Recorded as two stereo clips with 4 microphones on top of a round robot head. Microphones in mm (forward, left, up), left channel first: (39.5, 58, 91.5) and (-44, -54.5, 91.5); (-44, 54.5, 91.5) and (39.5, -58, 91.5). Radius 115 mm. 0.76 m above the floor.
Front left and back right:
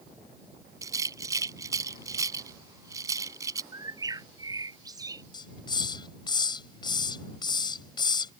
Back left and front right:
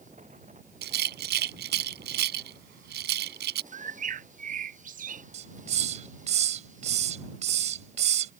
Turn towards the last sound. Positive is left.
turn(degrees=-10)